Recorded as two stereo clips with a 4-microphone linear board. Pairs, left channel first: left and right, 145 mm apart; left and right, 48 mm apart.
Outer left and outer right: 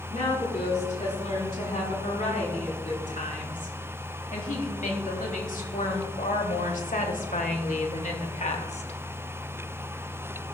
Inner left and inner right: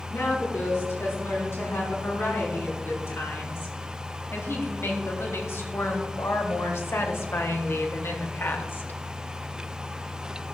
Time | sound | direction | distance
0.1 | a woman speaking | 65° left (ahead or behind) | 5 m